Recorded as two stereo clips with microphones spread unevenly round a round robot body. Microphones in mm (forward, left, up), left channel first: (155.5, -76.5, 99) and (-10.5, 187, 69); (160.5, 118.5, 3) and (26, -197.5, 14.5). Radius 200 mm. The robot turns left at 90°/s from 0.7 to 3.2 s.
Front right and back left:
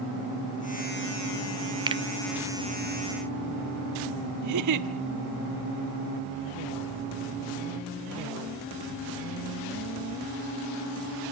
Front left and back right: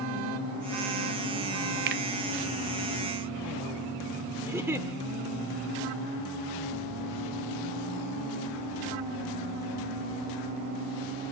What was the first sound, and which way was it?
A finger snap, 170° right.